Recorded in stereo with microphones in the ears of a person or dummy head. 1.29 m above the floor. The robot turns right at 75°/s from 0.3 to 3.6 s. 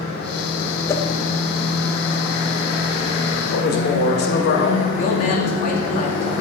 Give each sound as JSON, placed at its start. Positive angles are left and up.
{"t": 0.9, "sound": "a whoosh", "side_deg": 15, "distance_m": 0.8}
{"t": 3.5, "sound": "a man speaking", "side_deg": 60, "distance_m": 1.7}
{"t": 5.0, "sound": "a man speaking", "side_deg": 45, "distance_m": 2.0}